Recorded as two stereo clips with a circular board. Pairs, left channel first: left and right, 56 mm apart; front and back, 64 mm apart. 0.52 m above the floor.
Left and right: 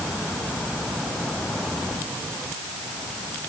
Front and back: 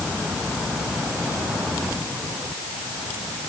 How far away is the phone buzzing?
I don't hear a phone buzzing.